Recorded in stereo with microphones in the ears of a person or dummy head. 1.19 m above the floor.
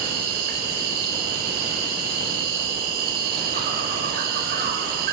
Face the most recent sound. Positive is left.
turn(degrees=-60)  # may be behind; listen again after turning